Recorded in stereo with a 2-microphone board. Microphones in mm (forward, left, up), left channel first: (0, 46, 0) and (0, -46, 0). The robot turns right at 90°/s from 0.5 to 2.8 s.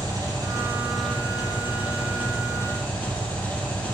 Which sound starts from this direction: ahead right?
An engine running, at 0.0 s.